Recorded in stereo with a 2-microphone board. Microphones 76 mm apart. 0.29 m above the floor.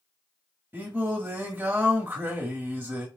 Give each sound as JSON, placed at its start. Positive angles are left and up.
{"t": 0.7, "sound": "singing", "side_deg": -25, "distance_m": 1.6}